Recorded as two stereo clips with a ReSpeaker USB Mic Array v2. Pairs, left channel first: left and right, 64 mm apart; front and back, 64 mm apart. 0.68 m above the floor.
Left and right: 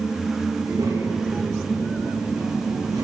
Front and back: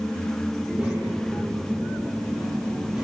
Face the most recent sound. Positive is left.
turn(degrees=-110)